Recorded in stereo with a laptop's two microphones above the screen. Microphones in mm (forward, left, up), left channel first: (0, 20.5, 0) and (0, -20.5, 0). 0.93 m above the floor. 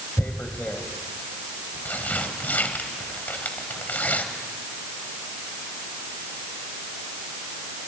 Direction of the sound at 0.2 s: 45° left (ahead or behind).